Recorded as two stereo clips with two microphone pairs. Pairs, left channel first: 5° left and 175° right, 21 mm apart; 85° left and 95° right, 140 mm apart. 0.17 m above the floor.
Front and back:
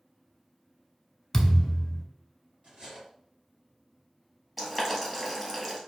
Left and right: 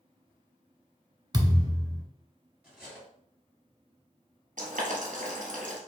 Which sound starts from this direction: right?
Boiling, at 4.6 s.